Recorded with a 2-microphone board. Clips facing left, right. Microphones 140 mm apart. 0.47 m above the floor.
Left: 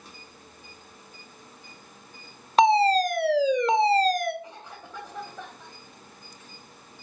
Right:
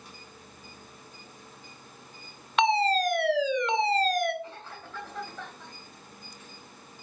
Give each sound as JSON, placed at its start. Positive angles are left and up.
{"t": 2.6, "sound": "a fire alarm", "side_deg": 40, "distance_m": 2.5}
{"t": 4.4, "sound": "a cough", "side_deg": 15, "distance_m": 2.5}